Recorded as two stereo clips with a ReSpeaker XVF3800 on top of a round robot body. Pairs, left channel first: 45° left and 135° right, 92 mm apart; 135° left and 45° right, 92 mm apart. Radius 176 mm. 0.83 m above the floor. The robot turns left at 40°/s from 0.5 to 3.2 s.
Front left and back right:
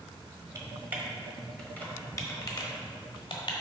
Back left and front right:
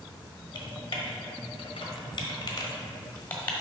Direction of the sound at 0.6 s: 170° left.